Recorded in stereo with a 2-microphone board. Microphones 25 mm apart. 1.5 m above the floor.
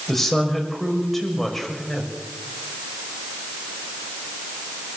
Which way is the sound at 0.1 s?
10° left (ahead or behind).